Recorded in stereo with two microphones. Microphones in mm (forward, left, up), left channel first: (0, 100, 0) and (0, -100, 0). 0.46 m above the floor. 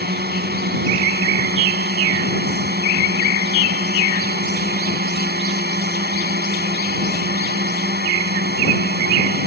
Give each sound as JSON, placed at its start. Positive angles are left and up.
{"t": 0.0, "sound": "a drone", "side_deg": -55}